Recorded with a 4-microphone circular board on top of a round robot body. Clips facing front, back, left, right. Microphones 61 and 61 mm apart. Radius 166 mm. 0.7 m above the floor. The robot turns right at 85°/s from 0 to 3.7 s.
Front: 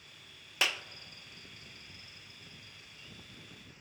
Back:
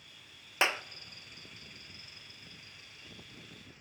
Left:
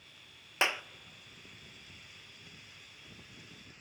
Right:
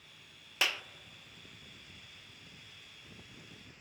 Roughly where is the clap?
Behind left.